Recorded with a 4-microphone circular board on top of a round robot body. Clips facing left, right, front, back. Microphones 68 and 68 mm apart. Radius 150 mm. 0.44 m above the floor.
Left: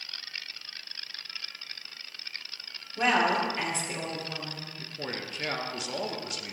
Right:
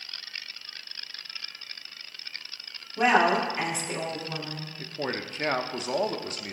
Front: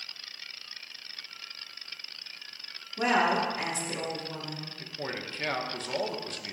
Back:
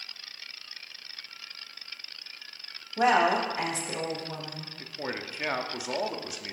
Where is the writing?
No writing in this recording.